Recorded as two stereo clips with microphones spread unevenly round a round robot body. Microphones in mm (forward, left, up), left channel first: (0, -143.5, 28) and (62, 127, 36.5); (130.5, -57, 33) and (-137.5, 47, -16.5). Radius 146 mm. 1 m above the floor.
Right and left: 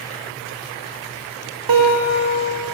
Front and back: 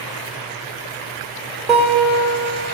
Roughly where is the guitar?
Left.